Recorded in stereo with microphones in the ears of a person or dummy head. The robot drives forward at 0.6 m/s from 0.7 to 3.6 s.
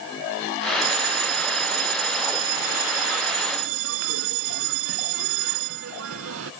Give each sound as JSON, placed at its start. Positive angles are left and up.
{"t": 0.8, "sound": "a bell", "side_deg": -85}